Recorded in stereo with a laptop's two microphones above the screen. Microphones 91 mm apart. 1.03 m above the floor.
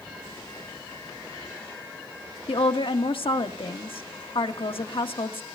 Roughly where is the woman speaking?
Left.